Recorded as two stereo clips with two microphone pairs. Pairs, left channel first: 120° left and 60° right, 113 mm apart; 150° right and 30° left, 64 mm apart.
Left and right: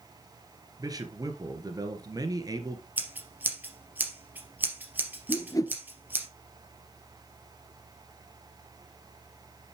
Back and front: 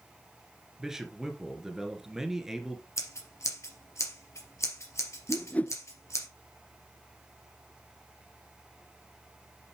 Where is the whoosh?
160° left, 0.7 m.